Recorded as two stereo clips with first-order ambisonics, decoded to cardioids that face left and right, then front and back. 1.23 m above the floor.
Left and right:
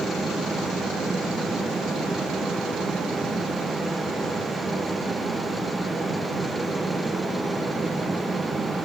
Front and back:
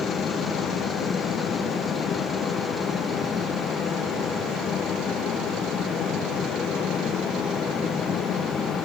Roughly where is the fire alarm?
I don't hear a fire alarm.